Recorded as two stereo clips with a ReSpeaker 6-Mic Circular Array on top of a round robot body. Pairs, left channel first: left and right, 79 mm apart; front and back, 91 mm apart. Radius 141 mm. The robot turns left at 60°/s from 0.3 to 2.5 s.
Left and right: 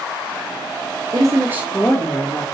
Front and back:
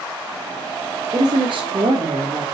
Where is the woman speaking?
130° right, 1.9 m; by 2.5 s 150° left, 1.9 m.